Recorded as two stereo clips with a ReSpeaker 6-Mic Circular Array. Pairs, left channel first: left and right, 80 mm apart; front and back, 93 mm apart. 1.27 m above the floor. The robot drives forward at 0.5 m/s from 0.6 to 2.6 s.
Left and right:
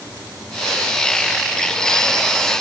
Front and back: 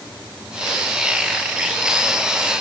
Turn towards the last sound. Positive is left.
No sound to turn to.